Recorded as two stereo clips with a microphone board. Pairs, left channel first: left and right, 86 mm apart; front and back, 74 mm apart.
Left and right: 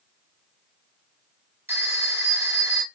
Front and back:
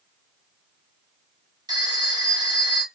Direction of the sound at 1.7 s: 155° right.